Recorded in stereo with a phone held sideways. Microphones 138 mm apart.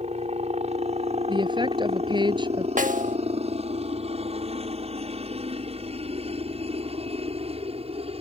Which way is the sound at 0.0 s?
50° right (ahead or behind).